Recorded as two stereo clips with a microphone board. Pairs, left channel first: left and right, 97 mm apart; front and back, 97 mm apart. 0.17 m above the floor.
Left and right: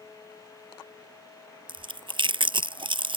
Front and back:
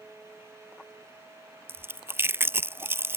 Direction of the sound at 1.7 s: 115° right.